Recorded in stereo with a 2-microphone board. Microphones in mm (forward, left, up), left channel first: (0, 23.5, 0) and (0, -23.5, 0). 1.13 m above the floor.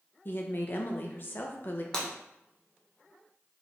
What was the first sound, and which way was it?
A woman speaking, 40° left (ahead or behind).